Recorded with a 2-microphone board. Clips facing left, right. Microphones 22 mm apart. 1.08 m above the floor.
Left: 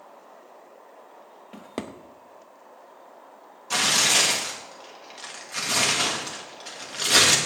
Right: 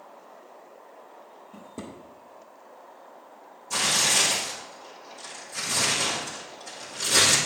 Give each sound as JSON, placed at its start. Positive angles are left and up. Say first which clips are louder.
{"t": 1.5, "sound": "a drawer", "louder": "left 6 dB", "side_deg": 80, "distance_m": 0.7}
{"t": 3.7, "sound": "tearing paper", "louder": "left 3 dB", "side_deg": 60, "distance_m": 1.9}